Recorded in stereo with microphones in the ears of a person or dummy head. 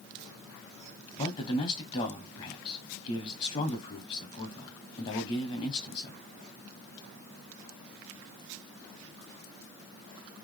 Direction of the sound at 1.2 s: 35° left (ahead or behind).